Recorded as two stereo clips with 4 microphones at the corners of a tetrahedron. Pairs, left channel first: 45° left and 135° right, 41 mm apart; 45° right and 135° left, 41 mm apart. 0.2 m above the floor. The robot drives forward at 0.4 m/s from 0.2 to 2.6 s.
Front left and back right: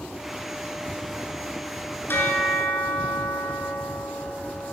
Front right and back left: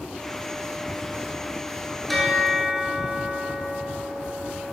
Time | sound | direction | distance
2.1 | a bell | 40° left | 1.7 m